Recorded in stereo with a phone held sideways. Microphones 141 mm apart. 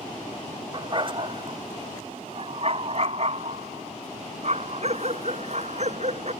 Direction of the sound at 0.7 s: 35° right (ahead or behind).